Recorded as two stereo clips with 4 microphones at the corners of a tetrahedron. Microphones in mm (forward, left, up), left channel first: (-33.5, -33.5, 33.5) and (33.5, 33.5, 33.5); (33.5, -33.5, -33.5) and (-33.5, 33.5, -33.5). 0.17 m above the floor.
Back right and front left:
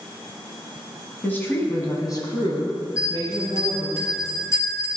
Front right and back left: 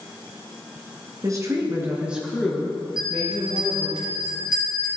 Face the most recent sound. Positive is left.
turn(degrees=-85)